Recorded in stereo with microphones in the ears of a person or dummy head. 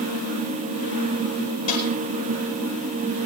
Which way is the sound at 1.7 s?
35° left (ahead or behind).